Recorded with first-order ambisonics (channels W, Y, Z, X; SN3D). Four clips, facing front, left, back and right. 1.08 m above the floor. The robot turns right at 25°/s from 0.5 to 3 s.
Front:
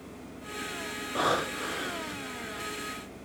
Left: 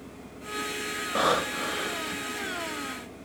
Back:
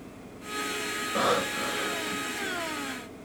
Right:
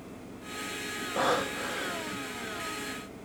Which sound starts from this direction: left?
Breathing, at 1.1 s.